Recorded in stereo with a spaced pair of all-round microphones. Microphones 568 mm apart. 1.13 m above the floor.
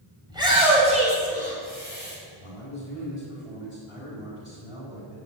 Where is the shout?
5° right (ahead or behind), 6.5 m; by 2.1 s 20° right (ahead or behind), 7 m.